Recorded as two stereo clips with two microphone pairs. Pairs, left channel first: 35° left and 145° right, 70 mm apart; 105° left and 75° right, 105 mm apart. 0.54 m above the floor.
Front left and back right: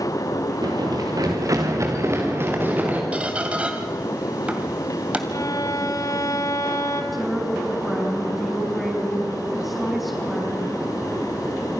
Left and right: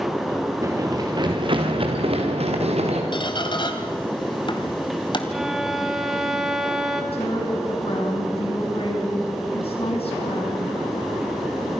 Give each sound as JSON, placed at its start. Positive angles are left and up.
{"t": 0.6, "sound": "running footsteps", "azimuth_deg": -135, "distance_m": 3.5}
{"t": 3.1, "sound": "a squeak", "azimuth_deg": 145, "distance_m": 2.0}
{"t": 5.3, "sound": "a violin", "azimuth_deg": 10, "distance_m": 2.0}
{"t": 7.1, "sound": "a woman speaking", "azimuth_deg": 125, "distance_m": 5.5}